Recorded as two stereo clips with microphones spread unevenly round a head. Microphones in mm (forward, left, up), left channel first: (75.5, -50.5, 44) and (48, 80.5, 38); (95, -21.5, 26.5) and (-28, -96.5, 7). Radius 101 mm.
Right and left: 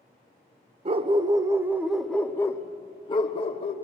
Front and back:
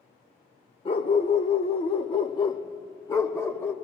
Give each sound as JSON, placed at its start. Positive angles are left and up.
{"t": 0.8, "sound": "a dog barking", "azimuth_deg": 70, "distance_m": 1.0}